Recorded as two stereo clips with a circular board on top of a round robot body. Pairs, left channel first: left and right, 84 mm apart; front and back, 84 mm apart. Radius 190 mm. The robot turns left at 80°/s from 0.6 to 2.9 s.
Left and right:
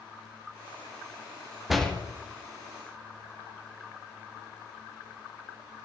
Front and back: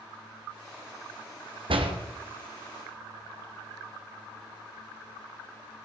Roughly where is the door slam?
Behind.